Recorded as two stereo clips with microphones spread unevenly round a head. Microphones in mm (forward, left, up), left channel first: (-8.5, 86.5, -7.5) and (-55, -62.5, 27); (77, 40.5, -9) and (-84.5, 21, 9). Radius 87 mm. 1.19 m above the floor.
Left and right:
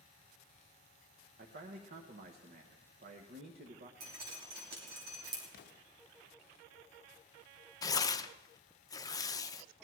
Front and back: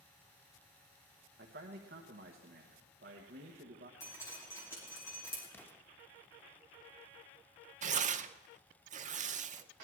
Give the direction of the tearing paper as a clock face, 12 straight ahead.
7 o'clock.